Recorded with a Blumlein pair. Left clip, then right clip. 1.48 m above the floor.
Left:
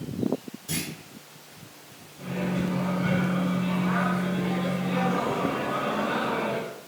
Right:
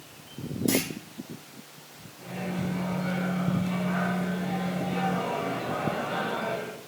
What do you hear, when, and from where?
0.7 s a clunk: 40° right, 3.5 m
2.2 s a microwave: 60° left, 3 m